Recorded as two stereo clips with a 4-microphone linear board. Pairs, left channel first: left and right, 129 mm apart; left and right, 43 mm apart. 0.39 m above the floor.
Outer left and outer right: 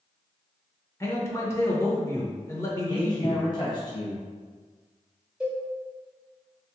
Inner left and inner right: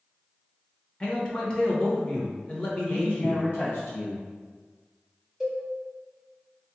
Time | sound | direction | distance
1.0 | a man speaking | 20° left (ahead or behind) | 0.8 m
2.9 | a man speaking | 40° left (ahead or behind) | 1.8 m
5.4 | a cowbell | 10° right (ahead or behind) | 1.4 m